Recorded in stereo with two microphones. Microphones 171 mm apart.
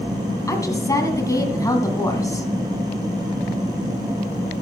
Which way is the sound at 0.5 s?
20° left (ahead or behind).